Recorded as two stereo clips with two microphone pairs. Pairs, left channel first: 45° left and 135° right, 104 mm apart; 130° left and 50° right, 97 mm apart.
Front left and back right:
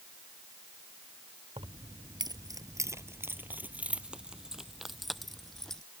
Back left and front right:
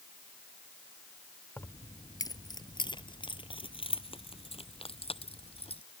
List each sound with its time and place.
1.6 s keys jangling: 165° right; by 5.8 s 135° left